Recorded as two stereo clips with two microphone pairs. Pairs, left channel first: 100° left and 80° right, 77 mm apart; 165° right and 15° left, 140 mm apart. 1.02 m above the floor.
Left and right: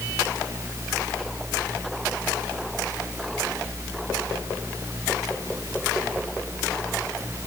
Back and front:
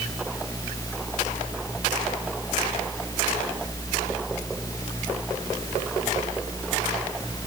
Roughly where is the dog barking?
I don't hear a dog barking.